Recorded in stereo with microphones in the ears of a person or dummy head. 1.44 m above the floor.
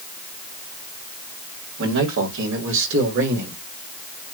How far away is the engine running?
I don't hear an engine running.